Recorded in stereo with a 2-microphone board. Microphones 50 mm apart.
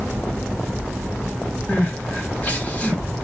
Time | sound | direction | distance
1.7 | crying | 35° left (ahead or behind) | 1.1 m